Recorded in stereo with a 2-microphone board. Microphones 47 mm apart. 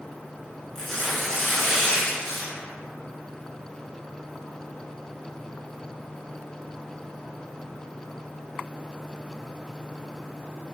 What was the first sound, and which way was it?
Tearing paper, 10° left (ahead or behind).